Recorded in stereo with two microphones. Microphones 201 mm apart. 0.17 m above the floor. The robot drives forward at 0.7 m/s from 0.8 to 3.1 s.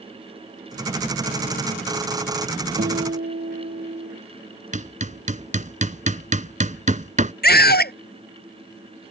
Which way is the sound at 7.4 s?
55° left (ahead or behind).